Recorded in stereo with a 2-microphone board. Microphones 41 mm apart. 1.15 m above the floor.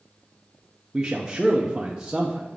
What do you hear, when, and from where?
0.9 s a man speaking: 20° right (ahead or behind), 0.7 m